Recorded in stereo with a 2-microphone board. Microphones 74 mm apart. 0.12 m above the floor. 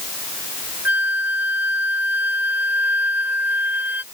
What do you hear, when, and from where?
0.8 s a flute: 25° right (ahead or behind)